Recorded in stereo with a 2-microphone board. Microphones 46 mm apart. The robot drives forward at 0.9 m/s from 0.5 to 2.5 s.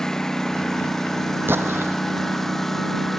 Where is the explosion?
55° right (ahead or behind); by 2.0 s 60° right (ahead or behind).